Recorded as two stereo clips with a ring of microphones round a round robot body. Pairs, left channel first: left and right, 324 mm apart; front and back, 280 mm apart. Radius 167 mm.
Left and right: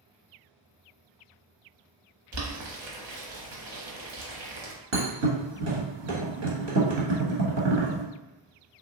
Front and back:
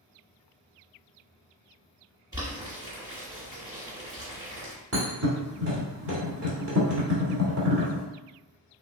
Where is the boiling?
100° right, 1.1 m.